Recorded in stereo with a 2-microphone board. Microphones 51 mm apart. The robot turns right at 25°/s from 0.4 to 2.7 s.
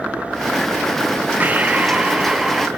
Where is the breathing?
35° right, 0.7 m; by 2.7 s 5° right, 0.7 m.